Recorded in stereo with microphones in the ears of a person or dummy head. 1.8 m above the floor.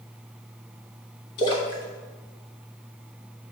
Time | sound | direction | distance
1.4 | a splash | 25° left (ahead or behind) | 1.2 m